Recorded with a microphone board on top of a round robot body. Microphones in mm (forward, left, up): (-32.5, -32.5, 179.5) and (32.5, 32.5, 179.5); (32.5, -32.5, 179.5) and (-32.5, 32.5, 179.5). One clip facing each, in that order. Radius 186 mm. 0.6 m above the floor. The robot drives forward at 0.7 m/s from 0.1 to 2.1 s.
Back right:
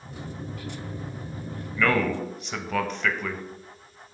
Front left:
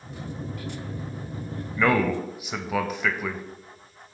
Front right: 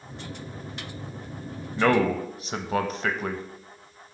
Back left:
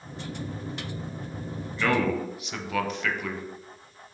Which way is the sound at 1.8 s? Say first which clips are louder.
Front left 2 dB, front right 3 dB; 20° right.